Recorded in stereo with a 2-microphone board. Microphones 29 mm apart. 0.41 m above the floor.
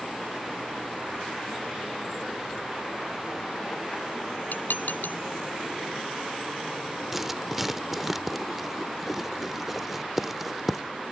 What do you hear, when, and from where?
4.5 s dishes clattering: 85° left
7.1 s writing: 5° right (ahead or behind)